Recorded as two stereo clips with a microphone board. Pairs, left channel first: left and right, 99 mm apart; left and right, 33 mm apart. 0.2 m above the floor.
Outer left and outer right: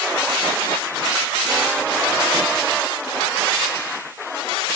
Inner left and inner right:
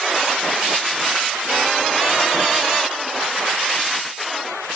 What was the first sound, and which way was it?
Only background noise.